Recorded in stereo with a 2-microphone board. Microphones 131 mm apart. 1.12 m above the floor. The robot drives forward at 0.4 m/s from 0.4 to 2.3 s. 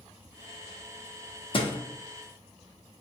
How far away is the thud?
About 0.6 m.